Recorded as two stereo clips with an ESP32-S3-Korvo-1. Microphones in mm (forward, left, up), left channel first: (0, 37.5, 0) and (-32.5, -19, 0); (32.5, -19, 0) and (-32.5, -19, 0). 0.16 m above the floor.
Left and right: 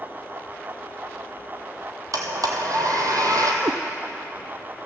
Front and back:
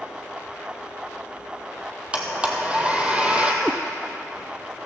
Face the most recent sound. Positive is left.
turn(degrees=-105)